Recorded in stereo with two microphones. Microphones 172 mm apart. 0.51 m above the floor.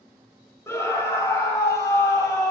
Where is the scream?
15° left (ahead or behind), 2.5 m.